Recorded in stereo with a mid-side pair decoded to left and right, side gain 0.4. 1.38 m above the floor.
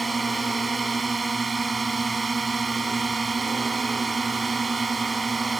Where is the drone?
30° right.